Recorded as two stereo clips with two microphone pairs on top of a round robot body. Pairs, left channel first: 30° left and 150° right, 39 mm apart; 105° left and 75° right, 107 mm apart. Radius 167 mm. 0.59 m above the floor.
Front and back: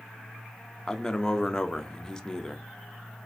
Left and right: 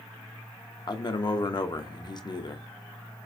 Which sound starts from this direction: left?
A man speaking, at 0.9 s.